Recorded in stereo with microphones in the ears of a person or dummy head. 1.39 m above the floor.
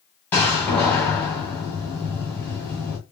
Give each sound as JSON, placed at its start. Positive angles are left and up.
{"t": 0.3, "sound": "a door slam", "side_deg": 10, "distance_m": 1.0}